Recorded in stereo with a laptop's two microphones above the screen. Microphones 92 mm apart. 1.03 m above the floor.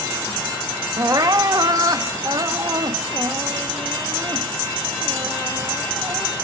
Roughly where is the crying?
Right.